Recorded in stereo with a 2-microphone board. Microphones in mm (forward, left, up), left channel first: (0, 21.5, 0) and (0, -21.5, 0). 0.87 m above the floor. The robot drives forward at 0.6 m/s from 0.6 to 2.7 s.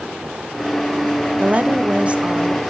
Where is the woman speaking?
35° right (ahead or behind), 1.0 m; by 2.6 s 25° right (ahead or behind), 1.3 m.